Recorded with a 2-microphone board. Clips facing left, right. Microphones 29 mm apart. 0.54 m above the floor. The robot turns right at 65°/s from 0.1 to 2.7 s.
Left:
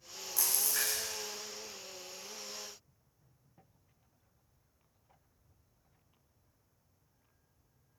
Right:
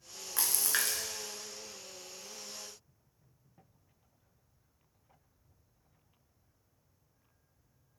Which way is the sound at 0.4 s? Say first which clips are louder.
Right 2 dB; 130° right.